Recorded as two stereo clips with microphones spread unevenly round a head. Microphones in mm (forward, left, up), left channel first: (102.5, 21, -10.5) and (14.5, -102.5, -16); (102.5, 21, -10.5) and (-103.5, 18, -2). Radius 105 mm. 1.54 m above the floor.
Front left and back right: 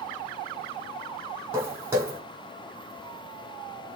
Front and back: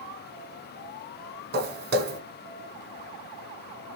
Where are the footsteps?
160° left, 2.5 m.